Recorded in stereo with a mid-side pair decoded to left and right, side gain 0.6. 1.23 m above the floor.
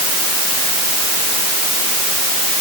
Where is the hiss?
I don't hear a hiss.